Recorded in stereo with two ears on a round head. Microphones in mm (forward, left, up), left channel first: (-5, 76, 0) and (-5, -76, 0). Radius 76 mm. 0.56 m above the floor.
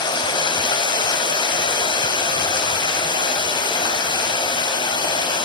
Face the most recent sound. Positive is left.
turn(degrees=25)  # may be behind; listen again after turning